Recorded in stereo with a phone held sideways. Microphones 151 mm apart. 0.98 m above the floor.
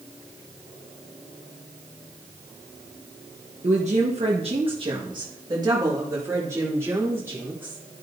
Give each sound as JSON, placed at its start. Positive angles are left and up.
{"t": 3.6, "sound": "a woman speaking", "side_deg": -50, "distance_m": 1.2}